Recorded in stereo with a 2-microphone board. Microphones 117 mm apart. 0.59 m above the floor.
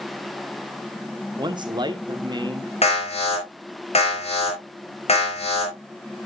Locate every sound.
1.4 s a man speaking: 40° right (ahead or behind), 1.3 m
2.8 s an alarm: 65° left (ahead or behind), 5 m